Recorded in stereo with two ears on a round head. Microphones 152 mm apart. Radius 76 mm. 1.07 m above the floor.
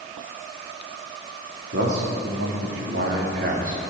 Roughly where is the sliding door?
I don't hear a sliding door.